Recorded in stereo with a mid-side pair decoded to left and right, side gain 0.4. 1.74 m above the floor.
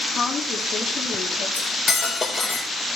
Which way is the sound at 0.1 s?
55° left.